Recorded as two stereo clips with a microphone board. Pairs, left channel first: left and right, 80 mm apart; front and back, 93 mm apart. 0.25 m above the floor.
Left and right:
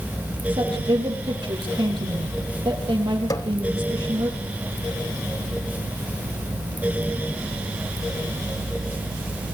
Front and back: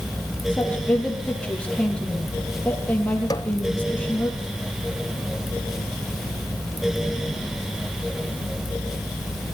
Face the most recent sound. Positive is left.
turn(degrees=50)